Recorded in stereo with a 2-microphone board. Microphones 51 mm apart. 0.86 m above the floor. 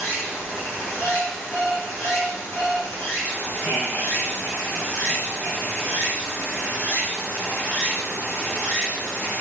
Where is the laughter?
25° left (ahead or behind), 2.5 m.